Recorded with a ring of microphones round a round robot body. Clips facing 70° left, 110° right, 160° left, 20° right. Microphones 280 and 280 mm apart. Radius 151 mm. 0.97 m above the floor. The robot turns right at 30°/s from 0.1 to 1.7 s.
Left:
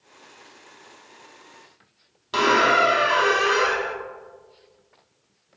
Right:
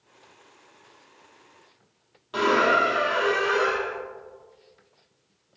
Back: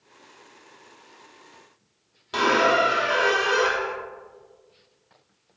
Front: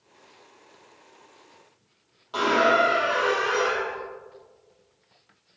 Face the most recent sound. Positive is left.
turn(degrees=105)